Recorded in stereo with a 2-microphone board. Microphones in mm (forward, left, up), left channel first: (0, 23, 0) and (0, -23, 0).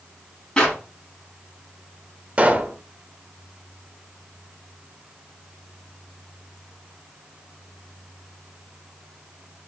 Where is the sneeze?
No sneeze in this recording.